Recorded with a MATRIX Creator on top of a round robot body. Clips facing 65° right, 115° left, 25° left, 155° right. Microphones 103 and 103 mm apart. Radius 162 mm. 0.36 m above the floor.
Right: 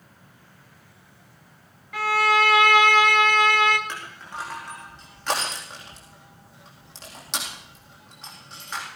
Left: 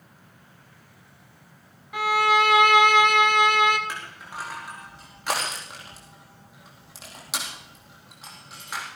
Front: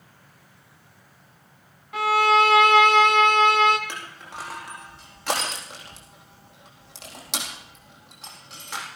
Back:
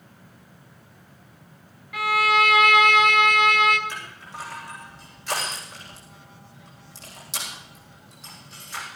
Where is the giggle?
I don't hear a giggle.